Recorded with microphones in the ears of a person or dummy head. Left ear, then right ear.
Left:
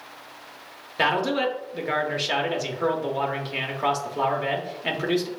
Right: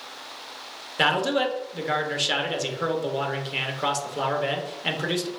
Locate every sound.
1.0 s a man speaking: 10° left (ahead or behind), 0.7 m